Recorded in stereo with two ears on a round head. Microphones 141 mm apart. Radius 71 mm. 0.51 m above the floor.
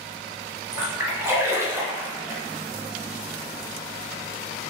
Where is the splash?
15° right (ahead or behind), 1.2 m.